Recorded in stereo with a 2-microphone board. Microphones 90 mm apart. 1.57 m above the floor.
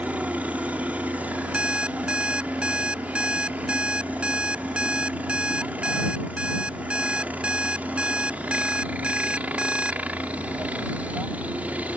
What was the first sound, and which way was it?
A helicopter, 15° right (ahead or behind).